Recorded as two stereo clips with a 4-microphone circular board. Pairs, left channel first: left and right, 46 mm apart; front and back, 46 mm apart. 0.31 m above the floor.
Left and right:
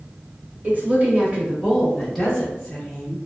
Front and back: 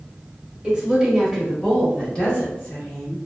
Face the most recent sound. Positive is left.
turn(degrees=35)